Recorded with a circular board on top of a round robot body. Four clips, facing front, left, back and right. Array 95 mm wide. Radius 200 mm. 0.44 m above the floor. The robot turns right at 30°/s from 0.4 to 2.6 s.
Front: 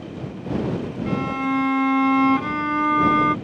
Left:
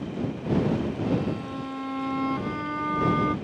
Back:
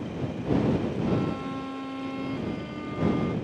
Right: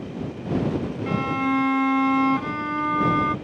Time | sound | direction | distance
1.1 | a violin | 60° right | ?